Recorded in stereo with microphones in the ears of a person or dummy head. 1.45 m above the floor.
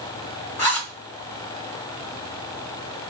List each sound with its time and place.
0.6 s a zipper: 15° left (ahead or behind), 2 m